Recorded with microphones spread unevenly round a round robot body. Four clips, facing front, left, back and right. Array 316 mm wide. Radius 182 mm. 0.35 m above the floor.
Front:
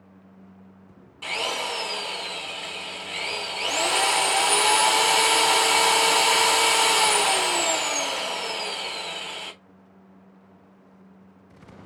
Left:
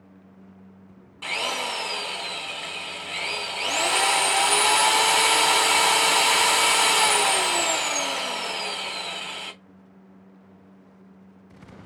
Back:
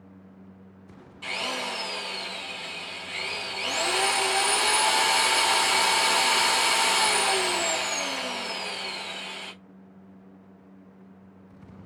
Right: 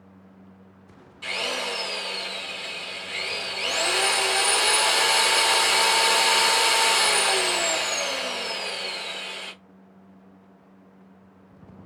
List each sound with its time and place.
1.2 s a drill: 25° left, 2.5 m